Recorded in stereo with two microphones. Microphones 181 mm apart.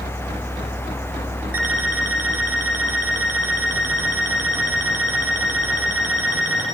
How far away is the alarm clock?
About 5.5 m.